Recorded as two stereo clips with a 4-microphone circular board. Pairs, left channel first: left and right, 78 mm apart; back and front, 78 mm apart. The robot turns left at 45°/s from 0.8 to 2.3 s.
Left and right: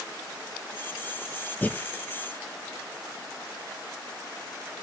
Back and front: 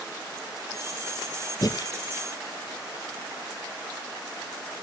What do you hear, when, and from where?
1.6 s breathing: 160° left, 1.0 m; by 1.9 s 145° left, 1.0 m